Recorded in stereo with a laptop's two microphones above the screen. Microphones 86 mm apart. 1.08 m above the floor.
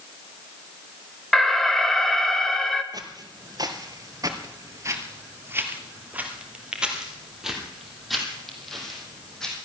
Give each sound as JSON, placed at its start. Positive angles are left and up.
{"t": 1.3, "sound": "an alarm", "side_deg": 5, "distance_m": 1.3}
{"t": 2.9, "sound": "footsteps", "side_deg": -45, "distance_m": 1.6}